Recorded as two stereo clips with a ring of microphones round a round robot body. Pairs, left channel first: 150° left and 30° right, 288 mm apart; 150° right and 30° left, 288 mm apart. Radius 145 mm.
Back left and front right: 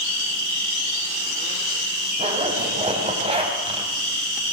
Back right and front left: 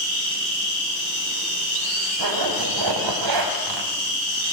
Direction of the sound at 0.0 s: 60° right.